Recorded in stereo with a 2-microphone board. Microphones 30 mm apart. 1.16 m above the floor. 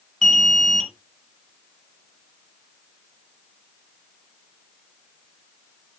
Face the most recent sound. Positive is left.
turn(degrees=15)  # may be behind; listen again after turning